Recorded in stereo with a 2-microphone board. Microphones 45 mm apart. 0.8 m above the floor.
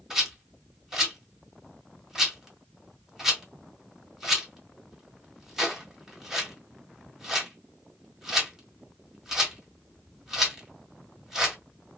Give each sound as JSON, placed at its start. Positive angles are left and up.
{"t": 0.1, "sound": "a rattle", "side_deg": -15, "distance_m": 1.5}